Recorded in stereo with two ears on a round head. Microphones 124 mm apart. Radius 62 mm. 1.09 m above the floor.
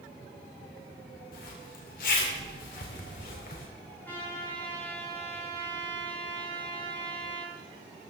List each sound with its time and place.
1.3 s a zipper: 70° left (ahead or behind), 2.5 m
4.0 s a trumpet: 15° left (ahead or behind), 5 m